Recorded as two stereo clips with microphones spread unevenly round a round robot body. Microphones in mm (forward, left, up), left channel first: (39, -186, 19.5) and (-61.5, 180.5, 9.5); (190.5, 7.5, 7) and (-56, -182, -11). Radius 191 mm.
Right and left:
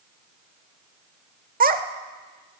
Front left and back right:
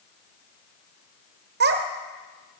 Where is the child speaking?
165° left, 0.9 m.